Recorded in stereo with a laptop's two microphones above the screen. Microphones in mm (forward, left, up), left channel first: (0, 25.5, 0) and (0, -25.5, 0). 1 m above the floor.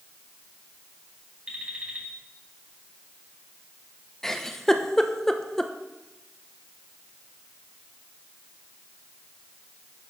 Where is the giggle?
10° left (ahead or behind), 0.7 m.